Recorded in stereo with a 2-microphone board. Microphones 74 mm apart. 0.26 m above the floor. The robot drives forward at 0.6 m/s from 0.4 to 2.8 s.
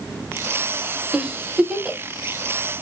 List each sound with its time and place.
1.1 s a giggle: 10° right (ahead or behind), 0.6 m